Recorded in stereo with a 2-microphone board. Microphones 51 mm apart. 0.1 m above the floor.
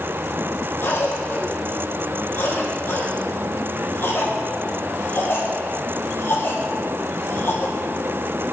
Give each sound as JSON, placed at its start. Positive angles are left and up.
{"t": 0.8, "sound": "a cough", "side_deg": 50, "distance_m": 4.0}